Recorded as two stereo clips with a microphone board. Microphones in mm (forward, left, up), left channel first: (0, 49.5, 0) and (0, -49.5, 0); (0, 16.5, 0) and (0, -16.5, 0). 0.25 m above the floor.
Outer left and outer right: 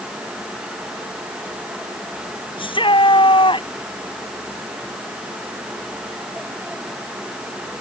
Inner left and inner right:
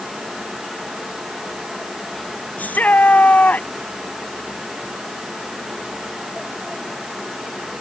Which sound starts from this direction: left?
A shout, at 2.6 s.